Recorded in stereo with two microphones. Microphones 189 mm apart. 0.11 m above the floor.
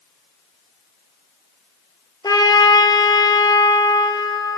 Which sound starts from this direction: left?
A trumpet, at 2.2 s.